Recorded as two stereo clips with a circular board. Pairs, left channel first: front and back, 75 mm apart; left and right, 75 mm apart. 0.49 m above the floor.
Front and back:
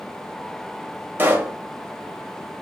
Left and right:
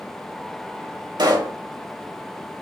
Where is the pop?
115° right, 0.9 m.